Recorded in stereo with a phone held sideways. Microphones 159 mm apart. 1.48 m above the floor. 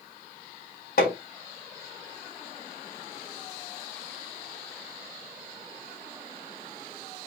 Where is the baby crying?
I don't hear a baby crying.